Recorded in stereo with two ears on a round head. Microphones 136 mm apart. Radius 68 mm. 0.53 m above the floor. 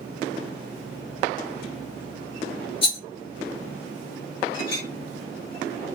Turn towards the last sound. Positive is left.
turn(degrees=30)  # may be behind; listen again after turning